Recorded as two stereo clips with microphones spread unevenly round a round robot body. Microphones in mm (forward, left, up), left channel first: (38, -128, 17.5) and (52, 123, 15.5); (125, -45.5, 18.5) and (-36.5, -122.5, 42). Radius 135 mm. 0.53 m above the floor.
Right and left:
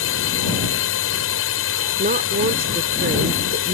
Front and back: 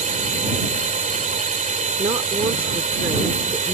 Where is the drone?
115° right.